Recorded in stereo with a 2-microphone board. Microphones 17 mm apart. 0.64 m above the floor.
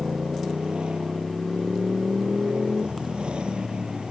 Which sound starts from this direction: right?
A motorcycle, at 0.0 s.